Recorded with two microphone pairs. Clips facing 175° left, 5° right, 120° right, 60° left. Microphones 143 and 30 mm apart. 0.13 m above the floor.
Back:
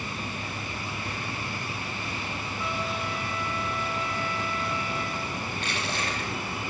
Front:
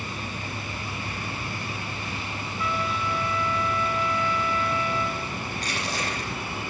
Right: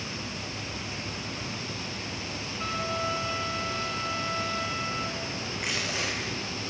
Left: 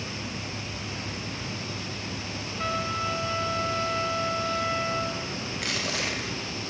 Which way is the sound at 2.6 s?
120° left.